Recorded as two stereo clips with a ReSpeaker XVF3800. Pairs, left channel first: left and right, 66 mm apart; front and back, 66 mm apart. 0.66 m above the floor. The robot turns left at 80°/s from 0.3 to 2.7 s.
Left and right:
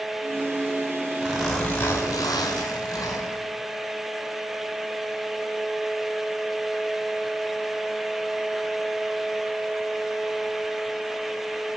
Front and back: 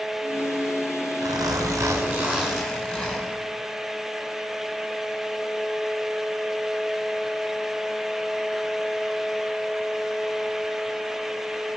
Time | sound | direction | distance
1.2 | a zipper | 160° right | 4.5 m